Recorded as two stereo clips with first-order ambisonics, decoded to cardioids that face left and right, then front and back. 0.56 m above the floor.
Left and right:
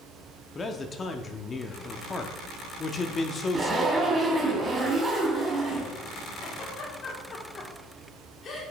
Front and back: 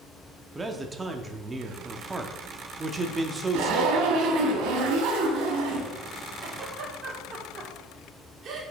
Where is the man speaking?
125° left, 0.6 m.